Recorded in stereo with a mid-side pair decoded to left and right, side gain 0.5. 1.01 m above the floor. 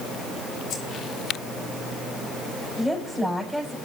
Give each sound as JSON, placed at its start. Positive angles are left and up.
{"t": 0.7, "sound": "keys jangling", "azimuth_deg": 55, "distance_m": 2.5}
{"t": 2.8, "sound": "a woman speaking", "azimuth_deg": -5, "distance_m": 5.5}